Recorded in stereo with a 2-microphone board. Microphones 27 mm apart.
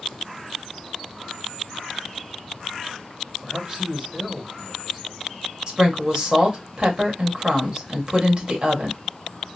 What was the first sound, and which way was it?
A man speaking, 25° right (ahead or behind).